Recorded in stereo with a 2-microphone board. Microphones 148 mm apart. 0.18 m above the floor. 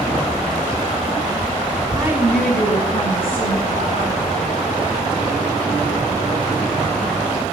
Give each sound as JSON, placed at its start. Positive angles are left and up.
{"t": 1.9, "sound": "a woman speaking", "side_deg": -25, "distance_m": 1.3}